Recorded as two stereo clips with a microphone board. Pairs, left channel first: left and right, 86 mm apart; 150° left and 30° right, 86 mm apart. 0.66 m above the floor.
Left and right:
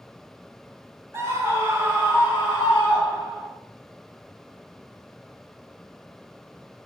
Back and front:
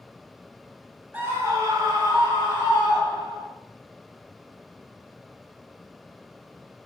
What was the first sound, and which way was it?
A scream, 75° right.